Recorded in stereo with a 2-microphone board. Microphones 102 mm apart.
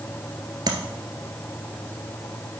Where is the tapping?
45° right (ahead or behind), 1.3 m.